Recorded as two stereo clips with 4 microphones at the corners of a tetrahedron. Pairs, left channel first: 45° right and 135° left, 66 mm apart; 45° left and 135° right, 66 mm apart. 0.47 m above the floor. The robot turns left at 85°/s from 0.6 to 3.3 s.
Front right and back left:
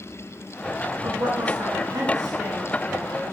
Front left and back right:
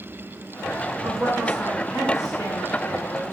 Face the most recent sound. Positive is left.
turn(degrees=-10)